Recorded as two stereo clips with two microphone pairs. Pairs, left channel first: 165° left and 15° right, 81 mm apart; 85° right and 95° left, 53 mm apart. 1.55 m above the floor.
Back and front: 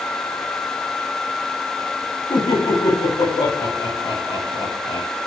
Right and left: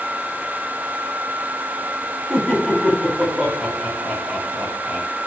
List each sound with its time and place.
2.3 s laughter: straight behind, 9.5 m; by 5.1 s 170° left, 9 m